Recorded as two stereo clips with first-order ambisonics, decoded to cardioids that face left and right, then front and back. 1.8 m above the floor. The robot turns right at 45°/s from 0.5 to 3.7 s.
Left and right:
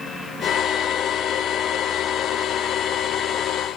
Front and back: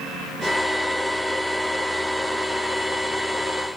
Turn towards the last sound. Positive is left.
No sound to turn to.